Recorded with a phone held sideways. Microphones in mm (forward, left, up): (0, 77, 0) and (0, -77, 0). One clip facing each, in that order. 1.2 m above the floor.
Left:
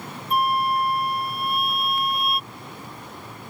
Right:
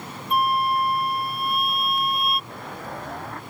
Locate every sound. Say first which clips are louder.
0.3 s a flute: even; centre (ahead or behind)
2.5 s an explosion: right 5 dB; 75° right (ahead or behind)